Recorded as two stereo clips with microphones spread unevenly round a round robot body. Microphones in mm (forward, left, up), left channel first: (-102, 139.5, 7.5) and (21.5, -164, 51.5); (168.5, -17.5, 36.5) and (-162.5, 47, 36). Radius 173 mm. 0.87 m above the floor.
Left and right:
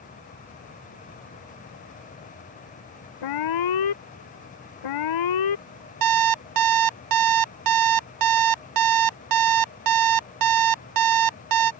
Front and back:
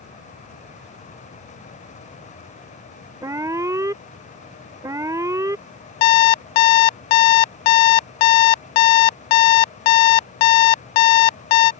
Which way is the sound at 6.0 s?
25° right.